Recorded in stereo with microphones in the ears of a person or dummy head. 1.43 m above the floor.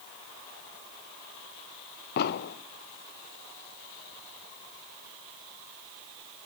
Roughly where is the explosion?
Left.